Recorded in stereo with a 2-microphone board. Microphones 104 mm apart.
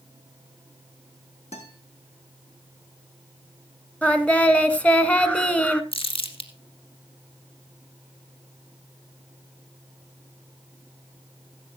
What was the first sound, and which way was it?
A guitar, 85° left.